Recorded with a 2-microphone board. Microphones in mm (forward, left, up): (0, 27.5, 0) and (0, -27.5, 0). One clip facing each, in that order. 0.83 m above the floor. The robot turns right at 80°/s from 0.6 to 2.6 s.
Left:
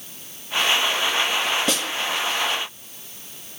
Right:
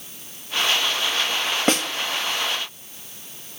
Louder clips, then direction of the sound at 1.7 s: Right 4 dB; 40° right (ahead or behind).